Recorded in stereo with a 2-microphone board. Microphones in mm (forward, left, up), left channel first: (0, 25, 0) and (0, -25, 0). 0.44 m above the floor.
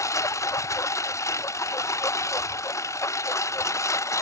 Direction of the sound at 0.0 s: 75° left (ahead or behind).